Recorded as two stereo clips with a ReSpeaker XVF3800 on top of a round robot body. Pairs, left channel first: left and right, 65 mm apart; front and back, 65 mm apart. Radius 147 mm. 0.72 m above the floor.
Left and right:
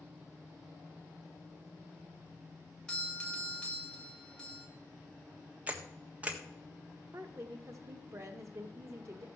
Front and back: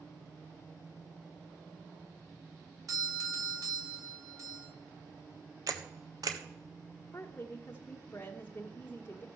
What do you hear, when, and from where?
2.9 s a doorbell: 165° left, 2 m
5.7 s a camera shutter: 155° right, 1.4 m
7.1 s a woman speaking: 55° right, 1.0 m